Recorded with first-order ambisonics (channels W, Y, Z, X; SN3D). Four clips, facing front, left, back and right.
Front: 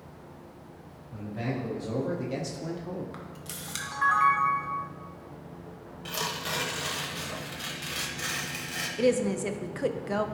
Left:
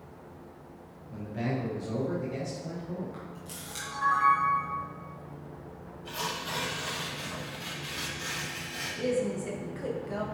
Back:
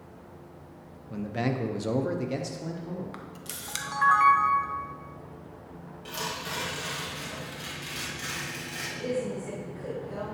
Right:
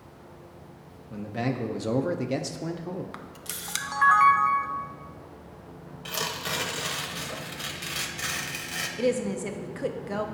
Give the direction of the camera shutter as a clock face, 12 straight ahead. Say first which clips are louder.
Right 3 dB, even; 3 o'clock.